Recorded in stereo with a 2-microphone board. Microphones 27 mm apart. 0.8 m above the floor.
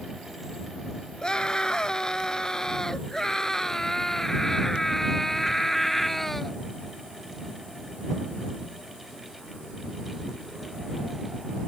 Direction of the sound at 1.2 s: 25° left (ahead or behind).